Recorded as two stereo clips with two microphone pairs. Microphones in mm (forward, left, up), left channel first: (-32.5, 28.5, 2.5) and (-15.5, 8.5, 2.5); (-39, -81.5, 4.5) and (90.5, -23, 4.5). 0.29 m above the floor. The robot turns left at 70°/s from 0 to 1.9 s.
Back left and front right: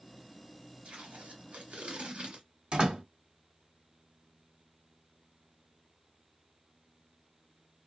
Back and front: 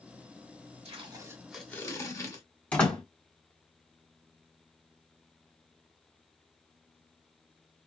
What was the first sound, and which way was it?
Tape being pulled, 15° right.